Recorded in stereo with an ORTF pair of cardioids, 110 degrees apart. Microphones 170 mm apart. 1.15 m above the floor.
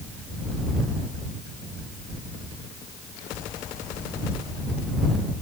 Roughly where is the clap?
No clap in this recording.